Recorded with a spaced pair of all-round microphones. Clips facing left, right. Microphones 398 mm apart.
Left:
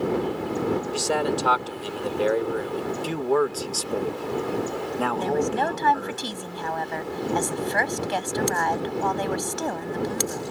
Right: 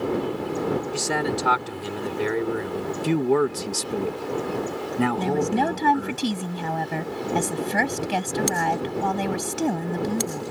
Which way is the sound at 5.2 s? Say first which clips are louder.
Right 1 dB; 45° right (ahead or behind).